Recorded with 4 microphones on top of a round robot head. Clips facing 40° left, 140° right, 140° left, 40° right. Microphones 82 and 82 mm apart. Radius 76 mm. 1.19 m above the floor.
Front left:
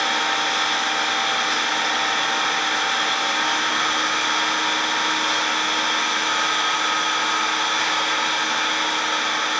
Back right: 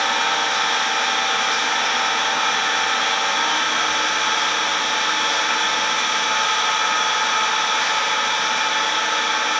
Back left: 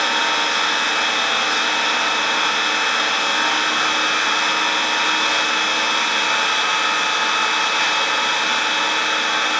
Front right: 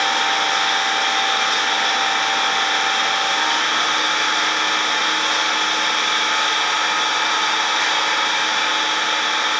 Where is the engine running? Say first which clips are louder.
Back right 2 dB, front right 1 dB; 120° left, 1.8 m.